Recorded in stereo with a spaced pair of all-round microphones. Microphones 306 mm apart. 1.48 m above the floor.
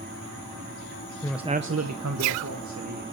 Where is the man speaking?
15° left (ahead or behind), 0.7 m; by 3.0 s 70° right (ahead or behind), 2.5 m.